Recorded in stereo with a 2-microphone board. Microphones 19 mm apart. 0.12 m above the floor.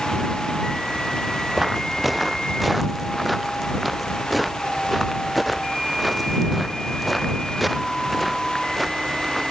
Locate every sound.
1.6 s footsteps: 5° right (ahead or behind); by 9.4 s centre (ahead or behind)